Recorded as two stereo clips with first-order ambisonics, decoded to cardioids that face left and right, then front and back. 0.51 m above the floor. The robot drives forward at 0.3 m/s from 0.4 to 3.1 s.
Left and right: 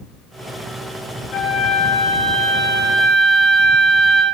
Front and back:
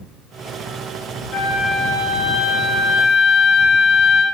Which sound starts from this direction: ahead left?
A flute, at 1.3 s.